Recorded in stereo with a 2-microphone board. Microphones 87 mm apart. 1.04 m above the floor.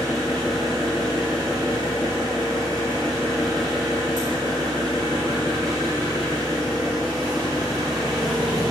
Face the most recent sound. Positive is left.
turn(degrees=-45)  # may be behind; listen again after turning